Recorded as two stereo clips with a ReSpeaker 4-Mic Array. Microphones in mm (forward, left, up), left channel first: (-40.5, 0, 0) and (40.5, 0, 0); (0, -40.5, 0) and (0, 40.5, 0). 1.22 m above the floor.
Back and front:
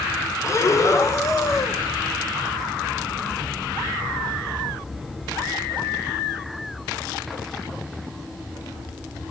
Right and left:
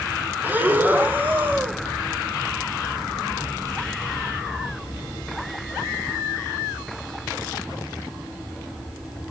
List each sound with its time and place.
0.4 s breathing: 150° left, 0.6 m